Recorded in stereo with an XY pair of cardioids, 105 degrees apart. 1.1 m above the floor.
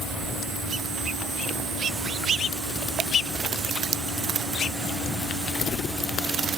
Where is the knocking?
No knocking in this recording.